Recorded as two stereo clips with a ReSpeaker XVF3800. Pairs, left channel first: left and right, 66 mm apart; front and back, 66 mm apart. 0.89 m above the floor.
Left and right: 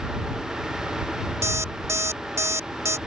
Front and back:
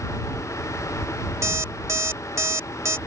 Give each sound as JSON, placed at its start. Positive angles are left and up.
{"t": 1.4, "sound": "an alarm clock", "azimuth_deg": -135}